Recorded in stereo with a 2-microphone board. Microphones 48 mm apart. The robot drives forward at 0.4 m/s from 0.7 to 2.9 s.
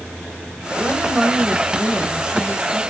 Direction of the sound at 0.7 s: 25° right (ahead or behind).